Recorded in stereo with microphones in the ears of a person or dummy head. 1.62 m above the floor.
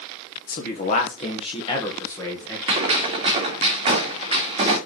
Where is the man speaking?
50° left (ahead or behind), 1.8 m; by 2.6 s 10° left (ahead or behind), 2 m.